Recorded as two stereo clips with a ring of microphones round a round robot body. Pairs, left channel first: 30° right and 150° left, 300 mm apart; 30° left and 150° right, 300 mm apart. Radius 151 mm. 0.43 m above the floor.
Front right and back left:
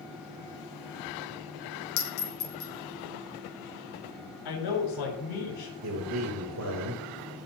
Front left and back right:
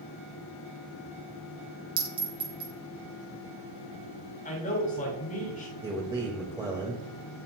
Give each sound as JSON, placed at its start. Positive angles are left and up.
{"t": 2.0, "sound": "a clink", "azimuth_deg": -75, "distance_m": 2.5}
{"t": 4.5, "sound": "a man speaking", "azimuth_deg": -35, "distance_m": 6.0}
{"t": 5.8, "sound": "a man speaking", "azimuth_deg": 135, "distance_m": 2.0}